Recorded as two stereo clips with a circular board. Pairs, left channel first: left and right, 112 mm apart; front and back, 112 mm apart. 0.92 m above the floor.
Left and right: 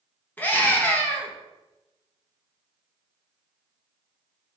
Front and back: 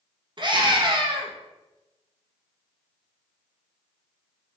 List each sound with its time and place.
0.4 s a scream: 160° left, 0.9 m